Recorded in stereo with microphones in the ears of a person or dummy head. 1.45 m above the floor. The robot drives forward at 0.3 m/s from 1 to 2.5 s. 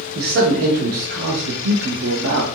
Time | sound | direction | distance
0.1 | a man speaking | 55° right (ahead or behind) | 0.6 m